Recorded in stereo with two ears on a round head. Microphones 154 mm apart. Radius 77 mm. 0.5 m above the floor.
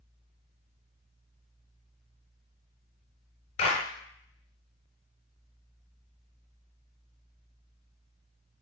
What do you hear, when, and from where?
3.6 s a clap: 40° left (ahead or behind), 4 m